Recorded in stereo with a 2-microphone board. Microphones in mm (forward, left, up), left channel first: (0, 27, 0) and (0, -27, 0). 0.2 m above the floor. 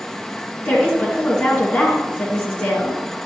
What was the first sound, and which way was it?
A woman speaking, 20° left (ahead or behind).